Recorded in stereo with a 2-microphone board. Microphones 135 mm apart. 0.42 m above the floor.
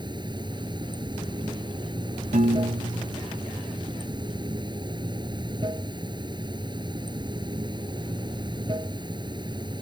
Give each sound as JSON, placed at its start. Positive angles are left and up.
{"t": 0.0, "sound": "running water", "side_deg": -35}
{"t": 2.3, "sound": "a piano", "side_deg": -75}